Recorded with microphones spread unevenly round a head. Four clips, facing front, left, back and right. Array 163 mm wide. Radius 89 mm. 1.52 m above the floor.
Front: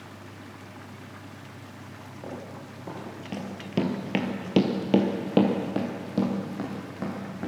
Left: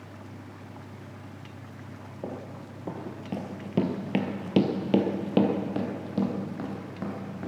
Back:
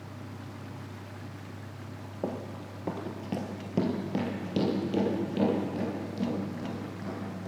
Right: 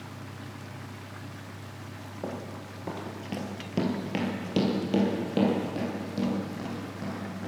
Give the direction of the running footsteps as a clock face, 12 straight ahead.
6 o'clock.